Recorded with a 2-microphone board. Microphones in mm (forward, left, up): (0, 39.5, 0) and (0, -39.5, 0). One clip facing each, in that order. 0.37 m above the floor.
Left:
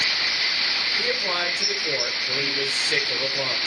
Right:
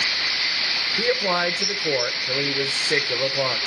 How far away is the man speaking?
About 1.2 m.